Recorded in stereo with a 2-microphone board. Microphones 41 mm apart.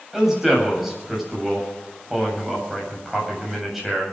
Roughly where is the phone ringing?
No phone ringing in this recording.